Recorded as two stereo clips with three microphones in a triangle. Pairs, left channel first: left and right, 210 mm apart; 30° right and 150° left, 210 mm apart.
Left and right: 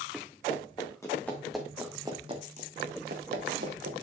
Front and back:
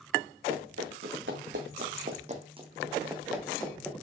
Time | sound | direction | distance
0.5 | running footsteps | 155° left | 3.5 m